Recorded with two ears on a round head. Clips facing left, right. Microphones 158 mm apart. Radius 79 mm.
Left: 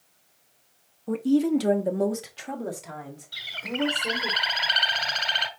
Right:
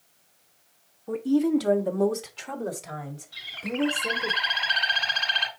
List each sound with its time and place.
1.1 s a woman speaking: 45° left (ahead or behind), 1.3 m; by 4.3 s 10° right (ahead or behind), 3 m
3.3 s a bird: 65° left (ahead or behind), 1.4 m